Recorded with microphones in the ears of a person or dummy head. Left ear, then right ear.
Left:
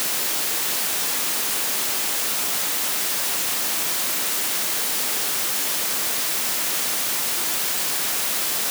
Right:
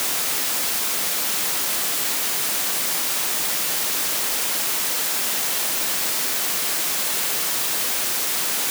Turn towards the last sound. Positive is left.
No sound to turn to.